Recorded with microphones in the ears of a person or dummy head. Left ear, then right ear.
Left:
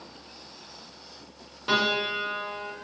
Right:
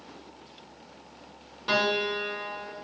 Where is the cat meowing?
I don't hear a cat meowing.